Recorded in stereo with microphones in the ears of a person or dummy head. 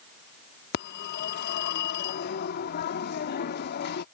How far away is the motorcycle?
No motorcycle in this recording.